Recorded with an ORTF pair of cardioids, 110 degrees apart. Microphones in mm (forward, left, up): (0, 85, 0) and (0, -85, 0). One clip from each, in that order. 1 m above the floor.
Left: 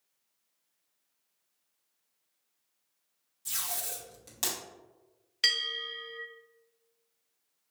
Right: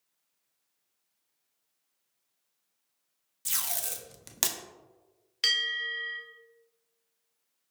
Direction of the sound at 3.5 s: 50° right.